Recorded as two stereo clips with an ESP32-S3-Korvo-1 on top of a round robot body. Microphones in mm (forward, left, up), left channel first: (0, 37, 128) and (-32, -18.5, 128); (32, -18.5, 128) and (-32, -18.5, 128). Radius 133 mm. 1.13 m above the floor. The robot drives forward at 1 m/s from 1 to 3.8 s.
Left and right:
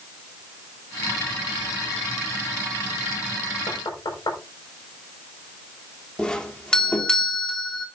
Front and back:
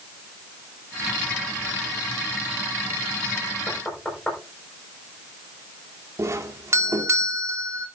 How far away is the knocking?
About 5.5 m.